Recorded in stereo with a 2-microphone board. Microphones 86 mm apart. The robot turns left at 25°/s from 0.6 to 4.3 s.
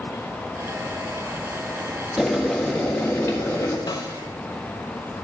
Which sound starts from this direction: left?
A snare drum, at 3.9 s.